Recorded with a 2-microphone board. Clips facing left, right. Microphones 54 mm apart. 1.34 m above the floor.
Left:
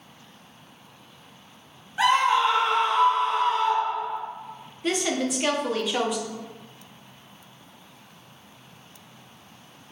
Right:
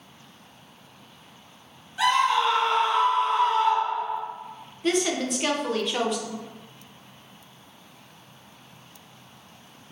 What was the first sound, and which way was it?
A scream, 25° left (ahead or behind).